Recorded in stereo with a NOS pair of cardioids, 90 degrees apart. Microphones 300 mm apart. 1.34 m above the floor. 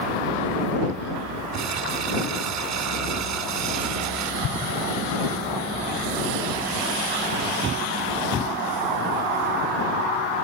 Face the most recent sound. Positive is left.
turn(degrees=60)